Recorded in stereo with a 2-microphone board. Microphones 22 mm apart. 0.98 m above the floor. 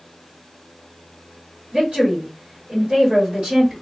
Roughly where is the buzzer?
No buzzer in this recording.